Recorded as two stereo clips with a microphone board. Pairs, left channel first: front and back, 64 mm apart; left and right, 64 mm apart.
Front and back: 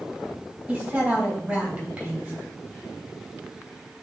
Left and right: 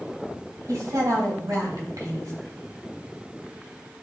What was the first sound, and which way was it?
A woman speaking, 120° right.